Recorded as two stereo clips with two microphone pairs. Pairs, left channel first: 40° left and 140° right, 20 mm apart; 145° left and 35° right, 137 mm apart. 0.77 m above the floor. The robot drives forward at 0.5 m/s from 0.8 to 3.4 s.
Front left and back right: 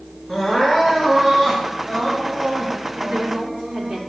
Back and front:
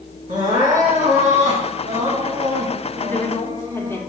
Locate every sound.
0.3 s crying: 55° right, 2.5 m; by 4.0 s 85° right, 2 m
3.0 s a woman speaking: 140° right, 1.5 m; by 4.0 s 145° right, 1.6 m